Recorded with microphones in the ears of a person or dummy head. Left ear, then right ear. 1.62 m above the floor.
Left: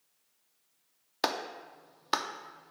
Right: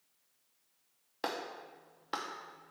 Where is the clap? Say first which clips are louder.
Left 6 dB; 35° left (ahead or behind), 0.6 m.